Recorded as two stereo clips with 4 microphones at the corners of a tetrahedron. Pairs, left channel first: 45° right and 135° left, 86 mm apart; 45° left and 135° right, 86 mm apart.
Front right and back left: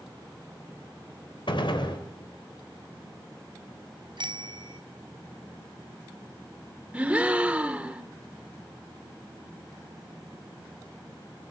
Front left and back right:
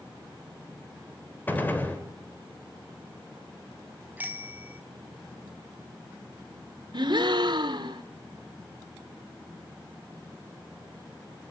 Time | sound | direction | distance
1.5 | a gunshot | 25° right | 3.5 m
4.2 | a bicycle bell | 155° left | 3 m
6.9 | a gasp | 150° right | 1.8 m